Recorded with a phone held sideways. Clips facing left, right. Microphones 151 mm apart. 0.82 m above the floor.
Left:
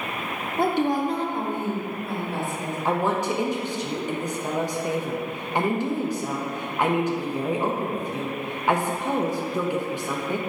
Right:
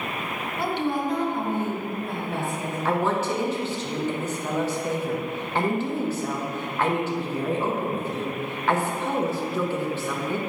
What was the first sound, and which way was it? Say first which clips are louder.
A woman speaking: left 4 dB; 55° left (ahead or behind).